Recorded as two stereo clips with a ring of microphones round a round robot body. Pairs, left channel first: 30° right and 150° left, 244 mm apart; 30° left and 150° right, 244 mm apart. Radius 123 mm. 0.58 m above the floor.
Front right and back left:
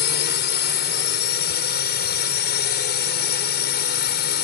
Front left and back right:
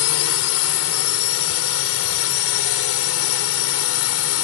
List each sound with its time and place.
0.0 s a drone: 15° left